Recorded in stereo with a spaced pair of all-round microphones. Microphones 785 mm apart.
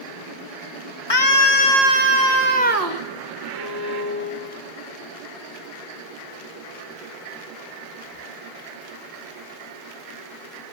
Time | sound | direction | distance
1.1 | a scream | 30° left (ahead or behind) | 1.5 m
3.5 | a violin | 55° right (ahead or behind) | 8 m